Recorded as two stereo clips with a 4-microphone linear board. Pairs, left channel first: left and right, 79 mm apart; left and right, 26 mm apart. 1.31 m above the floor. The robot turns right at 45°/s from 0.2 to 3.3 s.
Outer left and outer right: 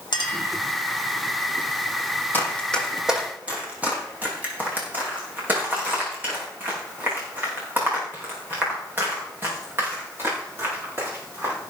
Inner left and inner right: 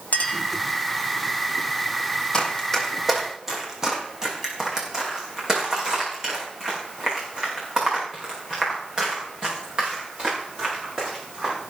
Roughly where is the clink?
Left.